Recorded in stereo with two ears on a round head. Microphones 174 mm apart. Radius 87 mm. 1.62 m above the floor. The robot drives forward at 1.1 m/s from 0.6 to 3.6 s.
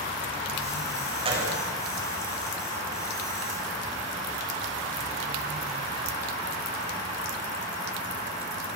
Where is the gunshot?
30° right (ahead or behind), 8.5 m.